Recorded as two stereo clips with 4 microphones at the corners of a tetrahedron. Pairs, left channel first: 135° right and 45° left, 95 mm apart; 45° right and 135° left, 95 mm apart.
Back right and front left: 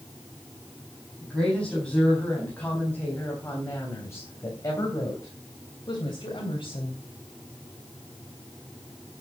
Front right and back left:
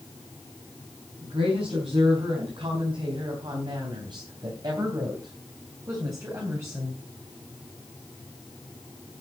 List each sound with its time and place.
1.2 s a woman speaking: 140° left, 4.5 m; by 7.0 s 160° right, 3.5 m